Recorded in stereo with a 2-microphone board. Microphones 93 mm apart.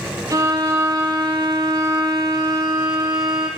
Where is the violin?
40° right (ahead or behind), 0.8 m.